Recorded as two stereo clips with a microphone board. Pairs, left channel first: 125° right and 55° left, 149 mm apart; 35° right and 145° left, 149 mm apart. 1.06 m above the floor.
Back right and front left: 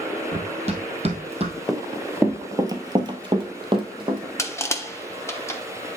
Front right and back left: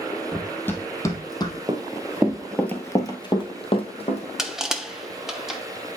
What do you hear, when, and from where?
0.3 s running footsteps: 50° left, 1.5 m; by 1.6 s 20° left, 1.8 m
1.7 s running footsteps: 145° left, 1.2 m; by 4.3 s 5° left, 2 m
4.4 s crushing: 135° right, 0.8 m